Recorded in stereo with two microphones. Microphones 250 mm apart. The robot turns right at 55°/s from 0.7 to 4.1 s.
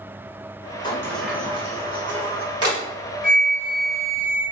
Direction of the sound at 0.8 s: 20° left (ahead or behind).